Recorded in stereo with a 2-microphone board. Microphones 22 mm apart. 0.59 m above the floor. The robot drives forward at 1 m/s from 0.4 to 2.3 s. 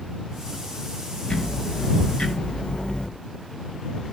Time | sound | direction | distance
1.3 | ticking | 45° left (ahead or behind) | 4.5 m